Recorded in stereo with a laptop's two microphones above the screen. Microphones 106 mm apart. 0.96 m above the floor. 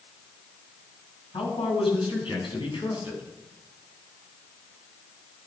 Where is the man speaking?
65° left (ahead or behind), 7.5 m; by 3.2 s 60° left (ahead or behind), 7.5 m.